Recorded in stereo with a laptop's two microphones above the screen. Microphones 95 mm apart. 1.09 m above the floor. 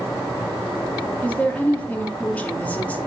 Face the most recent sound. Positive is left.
turn(degrees=15)  # may be behind; listen again after turning